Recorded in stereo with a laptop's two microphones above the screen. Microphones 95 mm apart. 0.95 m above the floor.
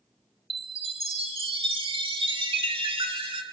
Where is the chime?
65° right (ahead or behind), 2.0 m.